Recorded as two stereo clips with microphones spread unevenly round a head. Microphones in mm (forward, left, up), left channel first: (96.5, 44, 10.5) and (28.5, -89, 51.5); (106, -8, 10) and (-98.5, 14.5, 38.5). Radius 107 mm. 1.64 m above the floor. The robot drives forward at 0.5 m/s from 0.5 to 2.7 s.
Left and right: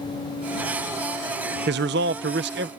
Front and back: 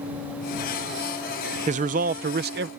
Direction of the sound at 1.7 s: 130° right.